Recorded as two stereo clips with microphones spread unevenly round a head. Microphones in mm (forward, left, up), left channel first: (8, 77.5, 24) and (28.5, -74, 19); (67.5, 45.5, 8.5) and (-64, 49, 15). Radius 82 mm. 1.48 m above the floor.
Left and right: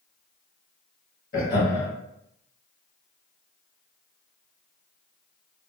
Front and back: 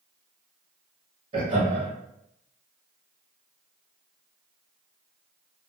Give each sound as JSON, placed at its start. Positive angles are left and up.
{"t": 1.3, "sound": "laughter", "azimuth_deg": 140, "distance_m": 2.0}